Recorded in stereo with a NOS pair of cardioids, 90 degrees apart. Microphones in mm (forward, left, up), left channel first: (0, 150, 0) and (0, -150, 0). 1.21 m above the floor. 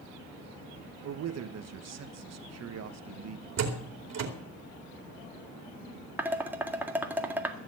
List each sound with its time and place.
1.0 s a man speaking: 60° right, 1.5 m
3.6 s a door slam: 60° right, 2.5 m
6.2 s dishes clattering: 5° right, 1.8 m